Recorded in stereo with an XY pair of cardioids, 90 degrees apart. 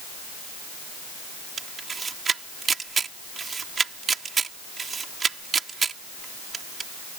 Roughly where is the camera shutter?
Ahead right.